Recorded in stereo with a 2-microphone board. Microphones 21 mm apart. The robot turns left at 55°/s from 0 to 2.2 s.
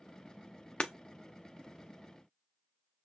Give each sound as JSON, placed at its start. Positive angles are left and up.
{"t": 0.8, "sound": "breaking glass", "side_deg": 50, "distance_m": 0.8}